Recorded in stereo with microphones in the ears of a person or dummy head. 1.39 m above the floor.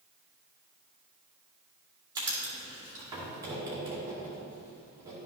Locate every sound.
2.1 s writing: 20° right (ahead or behind), 2 m